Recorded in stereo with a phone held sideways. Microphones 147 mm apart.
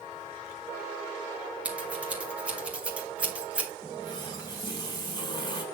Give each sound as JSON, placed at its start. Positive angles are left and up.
{"t": 1.6, "sound": "scissors", "side_deg": -10, "distance_m": 2.0}
{"t": 3.8, "sound": "a running tap", "side_deg": 25, "distance_m": 3.0}